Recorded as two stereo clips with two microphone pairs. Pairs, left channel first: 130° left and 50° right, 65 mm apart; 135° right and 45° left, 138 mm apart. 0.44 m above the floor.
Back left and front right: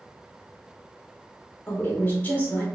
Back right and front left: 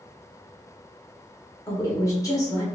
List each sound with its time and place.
1.7 s a woman speaking: 175° left, 1.3 m